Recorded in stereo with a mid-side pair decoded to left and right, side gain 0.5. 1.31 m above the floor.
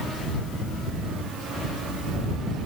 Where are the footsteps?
I don't hear footsteps.